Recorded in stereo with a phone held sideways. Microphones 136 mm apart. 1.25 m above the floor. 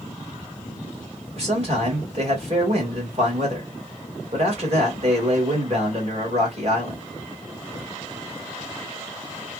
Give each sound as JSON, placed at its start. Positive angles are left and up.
{"t": 1.4, "sound": "a man speaking", "side_deg": -50, "distance_m": 2.0}